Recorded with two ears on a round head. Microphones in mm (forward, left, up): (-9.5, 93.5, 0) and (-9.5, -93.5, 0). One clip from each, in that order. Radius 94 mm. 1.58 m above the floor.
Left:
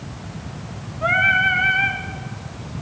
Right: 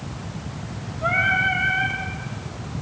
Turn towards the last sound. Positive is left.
turn(degrees=40)  # may be behind; listen again after turning